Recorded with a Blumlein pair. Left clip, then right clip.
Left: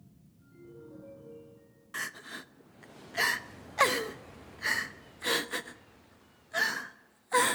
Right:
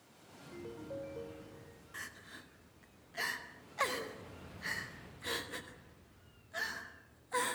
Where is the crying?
65° left, 0.8 m.